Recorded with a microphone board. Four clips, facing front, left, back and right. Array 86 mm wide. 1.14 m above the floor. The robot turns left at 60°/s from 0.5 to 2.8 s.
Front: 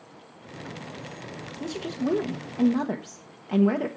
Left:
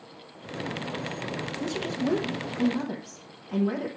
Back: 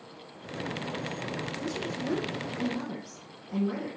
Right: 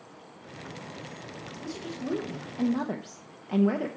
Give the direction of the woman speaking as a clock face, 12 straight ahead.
10 o'clock.